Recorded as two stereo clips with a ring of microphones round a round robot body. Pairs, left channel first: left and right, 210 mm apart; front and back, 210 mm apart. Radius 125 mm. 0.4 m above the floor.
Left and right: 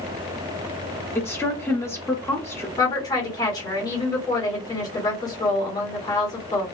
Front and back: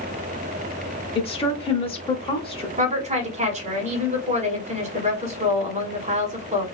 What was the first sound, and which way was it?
A woman speaking, 25° left.